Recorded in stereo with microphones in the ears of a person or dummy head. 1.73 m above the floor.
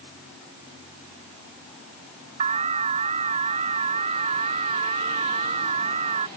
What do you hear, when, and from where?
2.4 s an alarm: 40° right (ahead or behind)